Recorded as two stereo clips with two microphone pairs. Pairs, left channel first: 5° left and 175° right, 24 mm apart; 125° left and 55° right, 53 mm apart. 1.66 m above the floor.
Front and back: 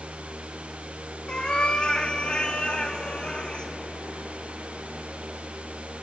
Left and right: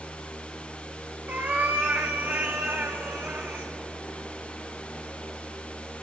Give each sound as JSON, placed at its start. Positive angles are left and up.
{"t": 1.3, "sound": "a cat meowing", "azimuth_deg": -20, "distance_m": 1.1}